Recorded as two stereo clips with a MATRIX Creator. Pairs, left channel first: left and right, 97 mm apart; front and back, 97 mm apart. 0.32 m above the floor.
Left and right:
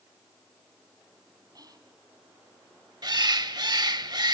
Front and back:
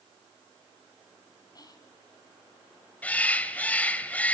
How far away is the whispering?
About 3 m.